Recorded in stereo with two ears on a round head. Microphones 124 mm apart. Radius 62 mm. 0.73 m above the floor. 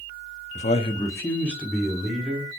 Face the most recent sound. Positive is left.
turn(degrees=-5)  # may be behind; listen again after turning